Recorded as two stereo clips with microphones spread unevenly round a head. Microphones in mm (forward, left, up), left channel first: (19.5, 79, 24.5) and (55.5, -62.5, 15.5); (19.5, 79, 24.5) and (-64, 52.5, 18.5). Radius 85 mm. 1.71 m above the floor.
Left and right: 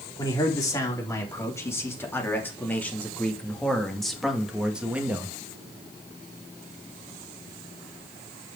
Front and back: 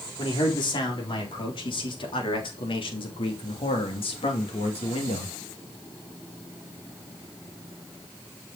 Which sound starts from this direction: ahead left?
A man speaking, at 0.2 s.